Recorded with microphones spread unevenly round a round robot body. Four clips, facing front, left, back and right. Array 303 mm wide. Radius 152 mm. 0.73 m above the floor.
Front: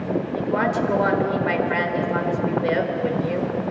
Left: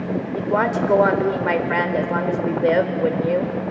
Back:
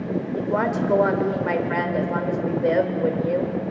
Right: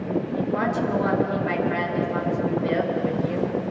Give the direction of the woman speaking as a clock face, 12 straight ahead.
9 o'clock.